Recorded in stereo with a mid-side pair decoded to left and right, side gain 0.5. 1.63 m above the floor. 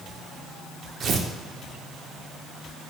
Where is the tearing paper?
55° right, 0.6 m.